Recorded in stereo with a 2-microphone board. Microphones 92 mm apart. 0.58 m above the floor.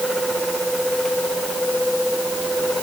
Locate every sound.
Only background noise.